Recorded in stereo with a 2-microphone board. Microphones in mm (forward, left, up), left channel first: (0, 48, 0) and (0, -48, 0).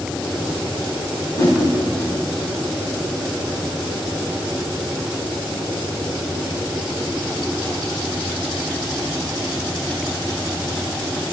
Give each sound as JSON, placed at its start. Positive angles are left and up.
{"t": 1.4, "sound": "a whoosh", "side_deg": 35, "distance_m": 5.5}